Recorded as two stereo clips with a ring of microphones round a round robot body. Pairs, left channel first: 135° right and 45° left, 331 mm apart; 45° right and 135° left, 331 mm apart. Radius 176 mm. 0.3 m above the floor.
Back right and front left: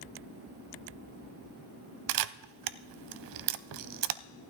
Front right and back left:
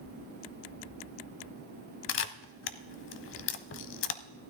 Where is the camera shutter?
10° left, 0.5 m.